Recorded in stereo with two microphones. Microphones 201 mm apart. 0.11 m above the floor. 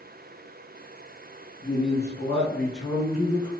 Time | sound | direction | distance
1.6 | a man speaking | 20° left (ahead or behind) | 1.4 m